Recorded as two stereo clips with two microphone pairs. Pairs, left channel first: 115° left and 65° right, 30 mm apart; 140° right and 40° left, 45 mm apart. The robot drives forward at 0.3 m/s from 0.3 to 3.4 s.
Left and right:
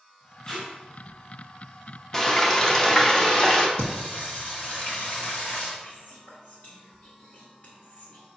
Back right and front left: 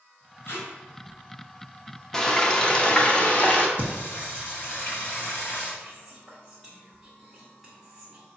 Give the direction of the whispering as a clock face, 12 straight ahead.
8 o'clock.